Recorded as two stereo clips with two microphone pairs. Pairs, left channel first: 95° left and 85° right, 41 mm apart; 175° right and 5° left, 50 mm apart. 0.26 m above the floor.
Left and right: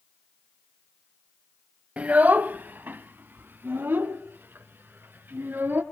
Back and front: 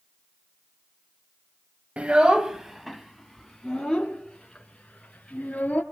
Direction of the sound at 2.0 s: 45° right.